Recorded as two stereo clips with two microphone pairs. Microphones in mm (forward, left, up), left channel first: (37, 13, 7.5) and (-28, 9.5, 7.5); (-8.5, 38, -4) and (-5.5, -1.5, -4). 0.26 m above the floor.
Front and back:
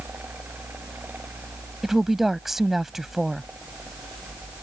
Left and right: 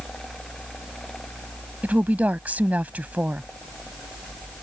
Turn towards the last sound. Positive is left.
turn(degrees=-95)